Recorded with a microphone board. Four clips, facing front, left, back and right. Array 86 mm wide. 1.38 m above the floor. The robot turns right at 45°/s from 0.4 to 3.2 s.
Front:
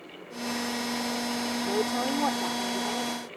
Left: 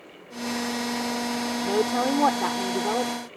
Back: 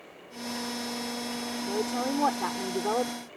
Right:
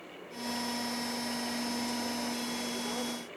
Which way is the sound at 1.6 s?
75° left.